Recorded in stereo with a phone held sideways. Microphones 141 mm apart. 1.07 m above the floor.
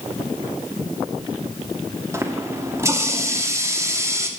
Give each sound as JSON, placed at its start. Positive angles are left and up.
{"t": 2.1, "sound": "a running tap", "side_deg": -20, "distance_m": 1.3}